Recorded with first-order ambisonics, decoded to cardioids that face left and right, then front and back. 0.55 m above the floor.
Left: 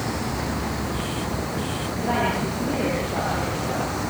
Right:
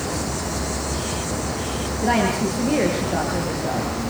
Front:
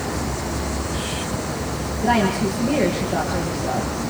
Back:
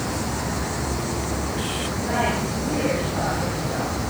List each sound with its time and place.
2.0 s a woman speaking: 60° right, 8.5 m